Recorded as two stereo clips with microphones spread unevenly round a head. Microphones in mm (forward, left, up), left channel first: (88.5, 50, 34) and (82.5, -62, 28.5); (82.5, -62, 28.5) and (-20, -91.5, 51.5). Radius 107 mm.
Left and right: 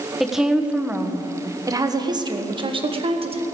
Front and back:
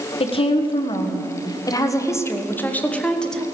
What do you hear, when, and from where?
0.2 s a woman speaking: 5° right, 1.5 m; by 3.4 s 65° right, 1.7 m